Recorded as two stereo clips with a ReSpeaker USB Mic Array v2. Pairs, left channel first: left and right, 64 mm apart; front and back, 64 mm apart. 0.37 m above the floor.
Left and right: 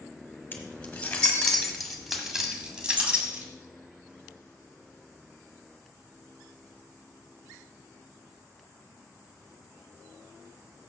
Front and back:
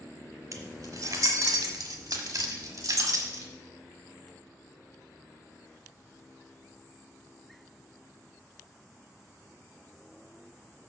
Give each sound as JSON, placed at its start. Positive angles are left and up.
{"t": 0.5, "sound": "keys jangling", "azimuth_deg": 150, "distance_m": 1.6}